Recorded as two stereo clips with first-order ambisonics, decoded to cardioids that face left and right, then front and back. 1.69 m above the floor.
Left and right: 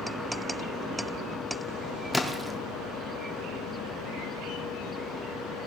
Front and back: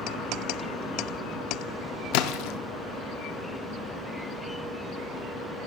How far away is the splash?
About 0.7 m.